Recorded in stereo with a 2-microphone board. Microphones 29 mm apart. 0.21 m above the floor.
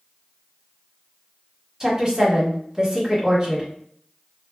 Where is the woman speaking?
15° right (ahead or behind), 1.3 m.